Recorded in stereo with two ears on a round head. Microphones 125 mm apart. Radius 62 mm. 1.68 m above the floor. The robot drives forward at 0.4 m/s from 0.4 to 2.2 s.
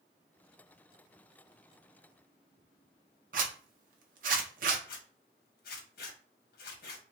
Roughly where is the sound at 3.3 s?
Right.